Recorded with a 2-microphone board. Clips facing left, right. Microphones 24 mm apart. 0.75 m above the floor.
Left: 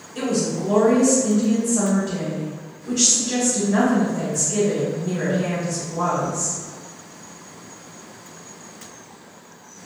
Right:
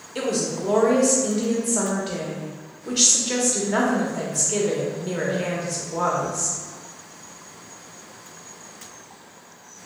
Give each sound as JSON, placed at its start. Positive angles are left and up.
{"t": 0.1, "sound": "a woman speaking", "side_deg": -65, "distance_m": 1.0}